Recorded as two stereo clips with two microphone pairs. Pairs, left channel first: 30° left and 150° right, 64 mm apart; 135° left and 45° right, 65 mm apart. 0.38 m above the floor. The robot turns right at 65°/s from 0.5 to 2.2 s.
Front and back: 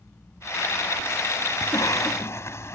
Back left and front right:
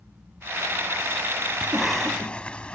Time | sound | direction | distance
1.6 | a cough | 25° left | ?